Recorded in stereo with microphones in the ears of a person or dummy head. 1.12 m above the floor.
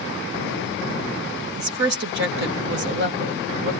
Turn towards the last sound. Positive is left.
turn(degrees=-55)  # may be behind; listen again after turning